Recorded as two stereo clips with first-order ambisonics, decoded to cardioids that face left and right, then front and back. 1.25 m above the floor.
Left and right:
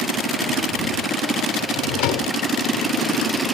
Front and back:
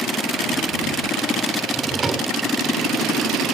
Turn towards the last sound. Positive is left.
turn(degrees=105)